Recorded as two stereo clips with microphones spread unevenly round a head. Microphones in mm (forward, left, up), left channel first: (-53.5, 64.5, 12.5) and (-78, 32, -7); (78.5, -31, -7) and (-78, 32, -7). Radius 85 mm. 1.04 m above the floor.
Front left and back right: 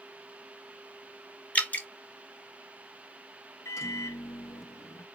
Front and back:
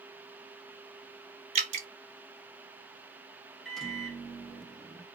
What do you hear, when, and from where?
1.6 s dripping: 110° left, 1.5 m
3.6 s a microwave: 65° left, 0.8 m